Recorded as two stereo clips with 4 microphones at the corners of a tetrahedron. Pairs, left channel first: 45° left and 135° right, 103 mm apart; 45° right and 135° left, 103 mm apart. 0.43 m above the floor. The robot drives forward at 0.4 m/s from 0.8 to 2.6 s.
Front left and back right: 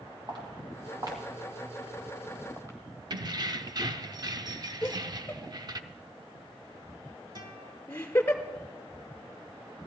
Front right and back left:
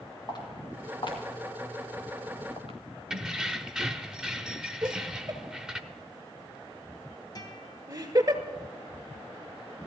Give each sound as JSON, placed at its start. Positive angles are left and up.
{"t": 0.3, "sound": "footsteps", "azimuth_deg": -90, "distance_m": 3.5}
{"t": 3.1, "sound": "keys jangling", "azimuth_deg": -145, "distance_m": 0.6}
{"t": 4.8, "sound": "laughter", "azimuth_deg": 110, "distance_m": 1.3}
{"t": 7.3, "sound": "a guitar", "azimuth_deg": -90, "distance_m": 1.8}